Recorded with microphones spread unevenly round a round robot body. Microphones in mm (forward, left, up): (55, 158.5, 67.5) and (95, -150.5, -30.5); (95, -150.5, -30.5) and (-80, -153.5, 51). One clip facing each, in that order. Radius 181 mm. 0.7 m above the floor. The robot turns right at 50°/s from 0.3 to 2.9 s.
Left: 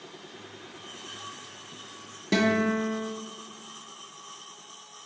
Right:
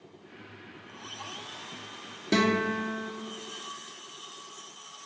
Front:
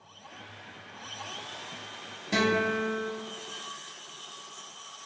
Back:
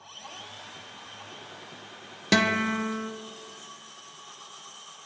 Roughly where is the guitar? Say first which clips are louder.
Left 2 dB, back 1 dB; behind.